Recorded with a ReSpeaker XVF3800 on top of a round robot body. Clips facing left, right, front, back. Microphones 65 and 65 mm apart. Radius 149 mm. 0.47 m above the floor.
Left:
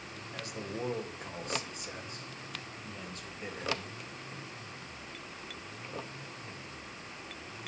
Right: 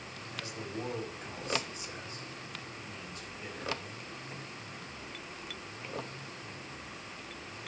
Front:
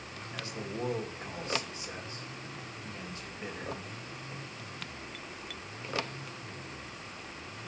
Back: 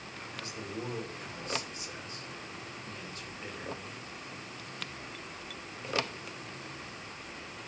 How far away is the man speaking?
About 3.5 m.